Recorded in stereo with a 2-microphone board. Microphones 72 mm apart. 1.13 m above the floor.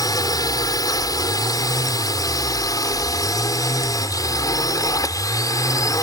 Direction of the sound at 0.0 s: 60° left (ahead or behind).